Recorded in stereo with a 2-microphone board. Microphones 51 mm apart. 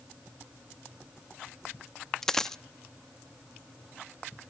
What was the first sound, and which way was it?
A dropped coin, 10° left (ahead or behind).